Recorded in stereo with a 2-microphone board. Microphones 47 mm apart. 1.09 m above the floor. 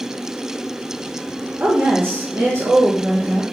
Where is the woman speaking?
40° right (ahead or behind), 0.8 m; by 3.4 s 75° right (ahead or behind), 1.2 m.